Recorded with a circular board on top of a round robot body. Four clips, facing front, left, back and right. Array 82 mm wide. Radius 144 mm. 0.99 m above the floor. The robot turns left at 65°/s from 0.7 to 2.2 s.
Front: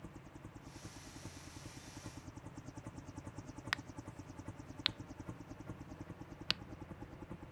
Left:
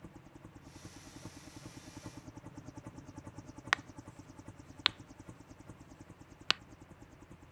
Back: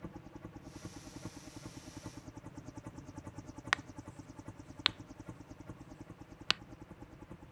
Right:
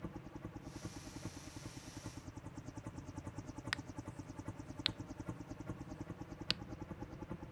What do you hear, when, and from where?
0.0 s a helicopter: 140° right; by 7.5 s 80° right
3.7 s a crack: 125° left